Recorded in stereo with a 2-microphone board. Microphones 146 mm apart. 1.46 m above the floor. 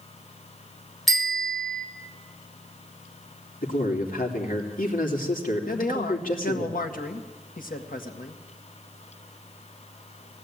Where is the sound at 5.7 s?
70° left (ahead or behind), 1.9 m.